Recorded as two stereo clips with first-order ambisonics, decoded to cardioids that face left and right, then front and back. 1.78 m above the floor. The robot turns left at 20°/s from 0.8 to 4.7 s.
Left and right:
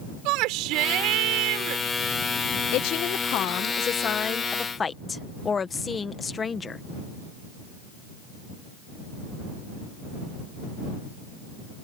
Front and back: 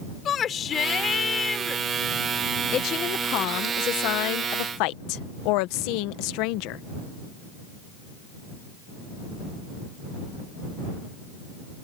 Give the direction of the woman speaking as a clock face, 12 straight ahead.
10 o'clock.